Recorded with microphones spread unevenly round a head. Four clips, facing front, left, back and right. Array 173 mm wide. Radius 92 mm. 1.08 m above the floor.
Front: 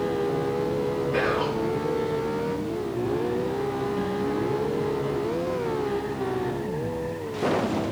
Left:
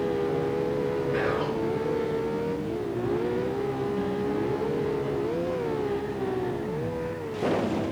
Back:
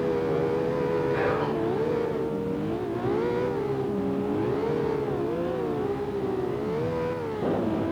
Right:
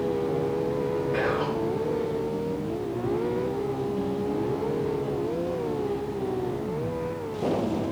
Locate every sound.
1.1 s whispering: 40° right, 4.5 m